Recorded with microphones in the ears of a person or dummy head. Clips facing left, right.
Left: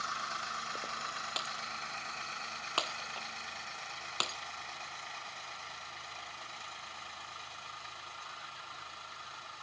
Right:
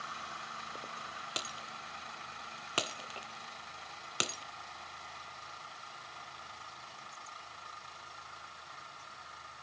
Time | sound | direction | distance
1.4 | breaking glass | 20° right (ahead or behind) | ?